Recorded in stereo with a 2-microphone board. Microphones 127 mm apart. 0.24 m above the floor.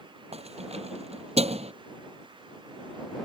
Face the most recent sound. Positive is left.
turn(degrees=-55)  # may be behind; listen again after turning